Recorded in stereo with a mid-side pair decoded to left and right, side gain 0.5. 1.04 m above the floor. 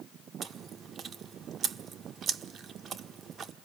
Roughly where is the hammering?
I don't hear hammering.